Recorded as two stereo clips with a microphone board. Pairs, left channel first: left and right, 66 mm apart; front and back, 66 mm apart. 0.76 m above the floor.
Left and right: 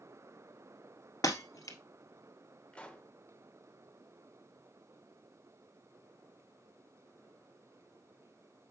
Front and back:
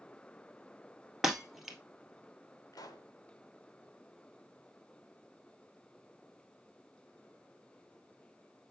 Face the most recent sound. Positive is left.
turn(degrees=15)